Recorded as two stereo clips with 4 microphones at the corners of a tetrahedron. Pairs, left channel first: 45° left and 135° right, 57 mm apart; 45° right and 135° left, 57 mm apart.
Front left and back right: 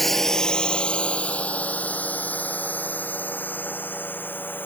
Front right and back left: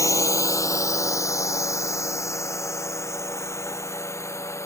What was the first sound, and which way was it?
A drone, 40° right.